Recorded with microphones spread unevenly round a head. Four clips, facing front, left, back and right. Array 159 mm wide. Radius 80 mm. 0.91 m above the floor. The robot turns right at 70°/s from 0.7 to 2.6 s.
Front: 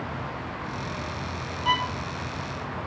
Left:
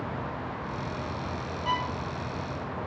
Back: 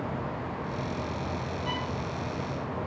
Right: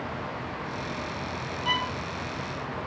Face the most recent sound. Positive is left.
turn(degrees=50)